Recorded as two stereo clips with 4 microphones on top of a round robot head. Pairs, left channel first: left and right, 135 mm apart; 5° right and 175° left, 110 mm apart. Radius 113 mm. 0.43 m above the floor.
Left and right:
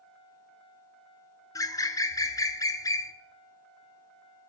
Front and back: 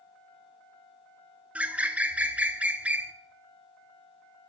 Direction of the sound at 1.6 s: 110° left.